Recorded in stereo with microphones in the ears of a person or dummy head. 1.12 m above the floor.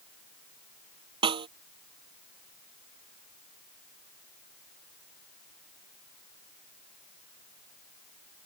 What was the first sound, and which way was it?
A snare drum, 25° right (ahead or behind).